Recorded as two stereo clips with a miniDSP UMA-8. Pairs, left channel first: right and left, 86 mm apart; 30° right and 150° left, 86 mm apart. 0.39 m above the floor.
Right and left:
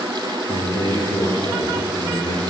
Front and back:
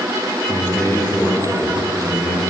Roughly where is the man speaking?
Right.